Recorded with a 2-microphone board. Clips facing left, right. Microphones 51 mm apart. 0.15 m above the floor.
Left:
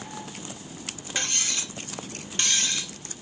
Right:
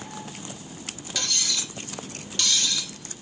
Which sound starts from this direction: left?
Cutlery clinking, at 1.1 s.